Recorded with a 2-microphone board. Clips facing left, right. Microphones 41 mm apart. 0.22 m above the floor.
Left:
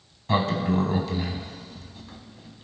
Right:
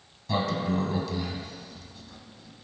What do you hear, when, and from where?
0.3 s a sliding door: 45° left (ahead or behind), 0.6 m